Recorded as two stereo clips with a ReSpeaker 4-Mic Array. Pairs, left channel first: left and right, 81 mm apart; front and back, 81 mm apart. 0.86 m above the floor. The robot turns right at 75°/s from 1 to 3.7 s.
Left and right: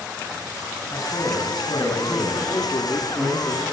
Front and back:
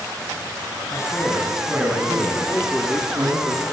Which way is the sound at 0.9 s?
45° left.